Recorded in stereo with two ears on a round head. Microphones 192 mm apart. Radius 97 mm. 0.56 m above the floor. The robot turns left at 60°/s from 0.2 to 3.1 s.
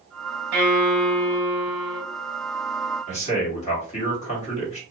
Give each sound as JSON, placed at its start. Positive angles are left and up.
{"t": 0.5, "sound": "a violin", "azimuth_deg": -105, "distance_m": 1.8}
{"t": 3.1, "sound": "a man speaking", "side_deg": 35, "distance_m": 1.5}